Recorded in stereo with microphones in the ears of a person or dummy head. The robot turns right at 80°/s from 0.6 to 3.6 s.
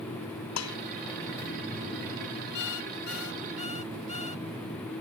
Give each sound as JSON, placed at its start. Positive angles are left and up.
{"t": 0.6, "sound": "dishes clattering", "side_deg": 90}
{"t": 2.5, "sound": "an alarm clock", "azimuth_deg": 60}